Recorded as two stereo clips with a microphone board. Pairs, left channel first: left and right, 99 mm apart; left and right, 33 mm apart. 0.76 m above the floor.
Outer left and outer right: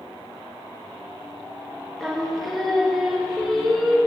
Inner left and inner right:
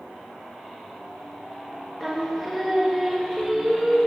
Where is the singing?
Centre (ahead or behind), 0.9 m.